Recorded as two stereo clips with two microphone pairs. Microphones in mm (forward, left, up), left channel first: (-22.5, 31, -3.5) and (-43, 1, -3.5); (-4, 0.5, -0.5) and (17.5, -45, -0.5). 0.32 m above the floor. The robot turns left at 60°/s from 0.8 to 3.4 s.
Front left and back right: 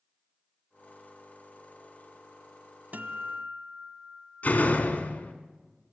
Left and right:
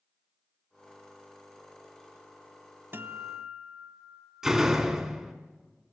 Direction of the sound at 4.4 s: 15° left.